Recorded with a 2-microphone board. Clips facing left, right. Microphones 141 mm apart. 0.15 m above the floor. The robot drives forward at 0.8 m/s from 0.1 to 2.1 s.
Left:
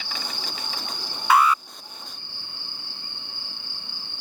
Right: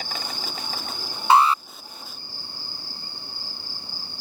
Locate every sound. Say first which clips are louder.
0.0 s an insect: right 2 dB; 45° right (ahead or behind); by 4.2 s 40° right (ahead or behind)
1.3 s an alarm: right 2 dB; 30° right (ahead or behind)